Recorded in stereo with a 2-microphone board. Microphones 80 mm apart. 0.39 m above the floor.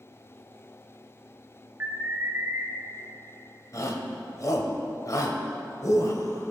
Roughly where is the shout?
Left.